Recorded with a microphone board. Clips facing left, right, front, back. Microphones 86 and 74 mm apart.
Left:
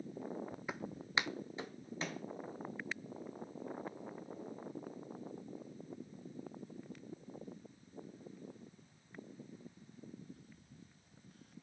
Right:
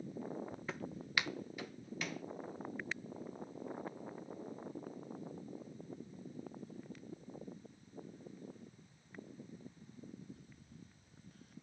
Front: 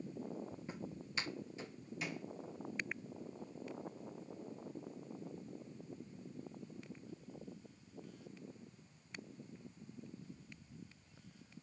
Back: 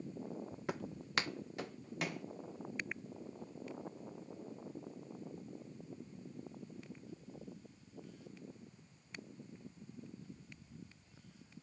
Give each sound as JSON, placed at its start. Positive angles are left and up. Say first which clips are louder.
{"t": 0.7, "sound": "footsteps", "louder": "left 2 dB, back 6 dB", "azimuth_deg": 165, "distance_m": 0.8}